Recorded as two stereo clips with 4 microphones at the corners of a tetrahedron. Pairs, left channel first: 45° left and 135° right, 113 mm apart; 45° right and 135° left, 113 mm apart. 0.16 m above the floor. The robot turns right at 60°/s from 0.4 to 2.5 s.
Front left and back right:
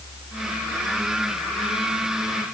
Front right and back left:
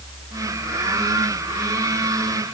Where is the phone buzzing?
No phone buzzing in this recording.